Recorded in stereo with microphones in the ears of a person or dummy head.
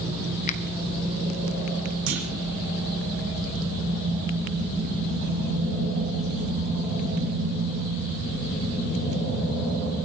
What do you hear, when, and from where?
0.5 s a finger snap: 40° left (ahead or behind), 1.1 m
2.1 s a clunk: 80° right, 5.5 m